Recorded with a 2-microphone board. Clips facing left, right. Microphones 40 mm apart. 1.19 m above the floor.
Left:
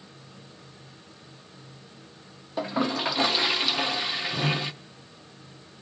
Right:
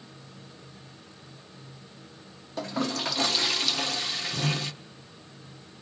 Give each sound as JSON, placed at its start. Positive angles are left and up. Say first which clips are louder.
{"t": 2.6, "sound": "a toilet flushing", "louder": "left 3 dB", "side_deg": 15, "distance_m": 0.6}